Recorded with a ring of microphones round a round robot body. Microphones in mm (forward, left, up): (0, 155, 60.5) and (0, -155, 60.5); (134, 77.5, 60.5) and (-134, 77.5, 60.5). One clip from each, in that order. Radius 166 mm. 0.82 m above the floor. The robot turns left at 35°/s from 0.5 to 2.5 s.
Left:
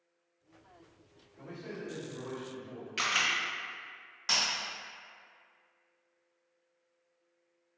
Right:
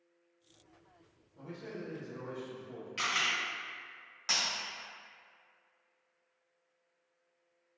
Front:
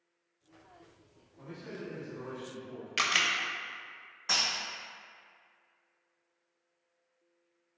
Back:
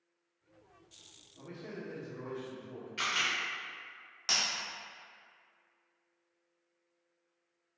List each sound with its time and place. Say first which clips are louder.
1.4 s a man speaking: left 1 dB, front 1 dB; 120° right, 1.5 m; by 2.9 s 160° right, 1.5 m
3.0 s a camera shutter: left 2 dB, front 4 dB; 15° left, 0.5 m
4.3 s breaking glass: left 2 dB, front 2 dB; 175° right, 1.7 m